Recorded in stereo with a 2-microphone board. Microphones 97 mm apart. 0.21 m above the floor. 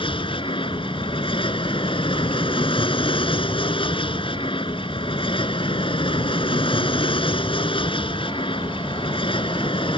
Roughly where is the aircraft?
Left.